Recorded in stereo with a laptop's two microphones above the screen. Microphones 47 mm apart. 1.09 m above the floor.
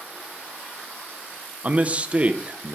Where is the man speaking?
30° right (ahead or behind), 0.8 m.